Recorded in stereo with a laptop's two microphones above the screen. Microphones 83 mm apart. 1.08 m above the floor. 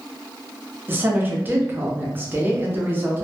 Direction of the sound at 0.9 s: 25° right (ahead or behind).